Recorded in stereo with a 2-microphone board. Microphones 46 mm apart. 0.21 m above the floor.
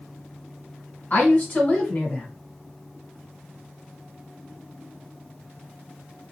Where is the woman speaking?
40° left (ahead or behind), 1.6 m.